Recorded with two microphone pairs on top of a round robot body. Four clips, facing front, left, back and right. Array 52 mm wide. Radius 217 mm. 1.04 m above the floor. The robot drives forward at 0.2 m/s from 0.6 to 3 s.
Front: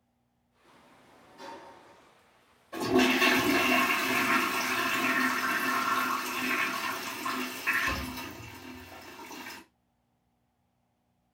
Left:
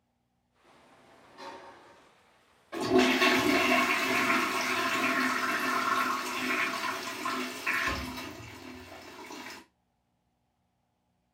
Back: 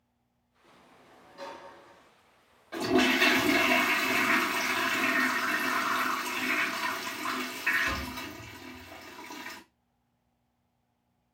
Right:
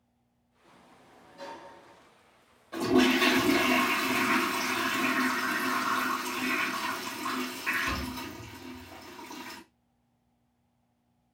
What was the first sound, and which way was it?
A sliding door, 155° left.